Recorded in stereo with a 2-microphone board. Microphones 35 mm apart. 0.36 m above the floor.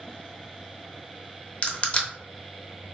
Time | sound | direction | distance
1.6 | crushing | 35° left (ahead or behind) | 0.9 m